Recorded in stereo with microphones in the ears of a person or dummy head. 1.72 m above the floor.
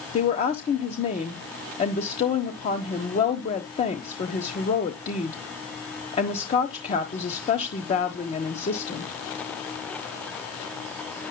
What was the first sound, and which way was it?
A woman speaking, 30° left (ahead or behind).